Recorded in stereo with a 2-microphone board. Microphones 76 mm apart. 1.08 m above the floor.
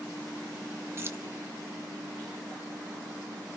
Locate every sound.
1.0 s keys jangling: 30° right (ahead or behind), 1.0 m